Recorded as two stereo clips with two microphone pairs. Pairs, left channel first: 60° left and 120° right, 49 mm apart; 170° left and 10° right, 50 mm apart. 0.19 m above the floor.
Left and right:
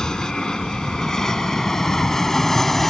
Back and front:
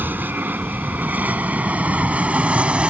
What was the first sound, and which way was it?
An aircraft, 5° right.